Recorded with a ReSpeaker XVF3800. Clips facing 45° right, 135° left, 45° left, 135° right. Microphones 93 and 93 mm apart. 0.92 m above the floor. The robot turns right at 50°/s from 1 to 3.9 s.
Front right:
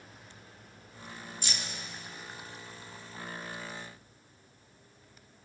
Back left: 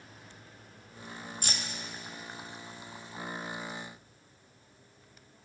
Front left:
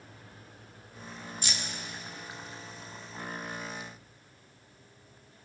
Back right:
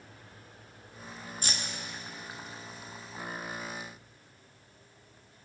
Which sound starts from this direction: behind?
Keys jangling, at 1.4 s.